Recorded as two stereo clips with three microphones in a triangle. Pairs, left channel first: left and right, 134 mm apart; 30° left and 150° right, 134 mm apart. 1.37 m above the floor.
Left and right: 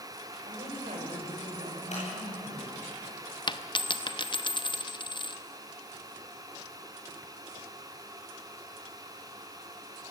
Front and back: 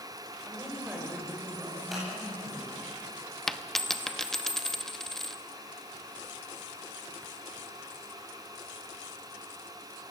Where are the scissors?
120° left, 10 m.